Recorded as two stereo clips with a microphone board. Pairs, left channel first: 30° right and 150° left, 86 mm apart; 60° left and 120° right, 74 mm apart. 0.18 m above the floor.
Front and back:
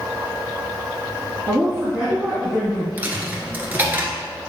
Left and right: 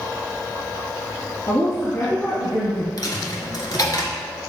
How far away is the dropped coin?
About 1.4 m.